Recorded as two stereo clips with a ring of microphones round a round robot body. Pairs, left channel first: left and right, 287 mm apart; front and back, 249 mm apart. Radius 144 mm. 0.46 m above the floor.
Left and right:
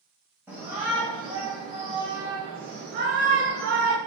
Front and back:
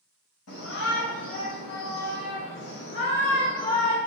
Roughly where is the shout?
Ahead.